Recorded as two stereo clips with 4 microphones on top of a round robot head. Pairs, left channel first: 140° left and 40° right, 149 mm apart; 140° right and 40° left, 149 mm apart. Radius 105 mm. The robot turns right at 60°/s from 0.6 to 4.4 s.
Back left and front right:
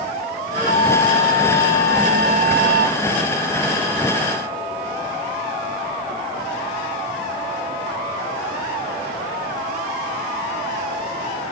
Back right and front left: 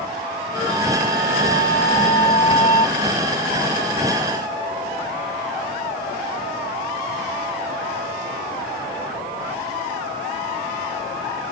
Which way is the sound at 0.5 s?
85° right.